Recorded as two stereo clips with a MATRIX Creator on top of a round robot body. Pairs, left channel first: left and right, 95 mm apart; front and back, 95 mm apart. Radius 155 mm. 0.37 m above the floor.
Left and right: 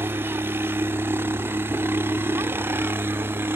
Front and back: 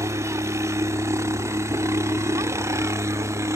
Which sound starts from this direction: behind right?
A helicopter, at 0.0 s.